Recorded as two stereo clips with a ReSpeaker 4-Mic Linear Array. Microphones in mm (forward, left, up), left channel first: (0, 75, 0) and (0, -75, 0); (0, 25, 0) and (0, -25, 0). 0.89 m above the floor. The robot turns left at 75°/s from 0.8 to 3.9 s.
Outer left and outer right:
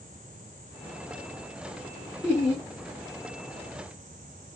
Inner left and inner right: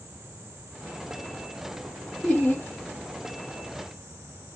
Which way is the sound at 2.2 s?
160° left.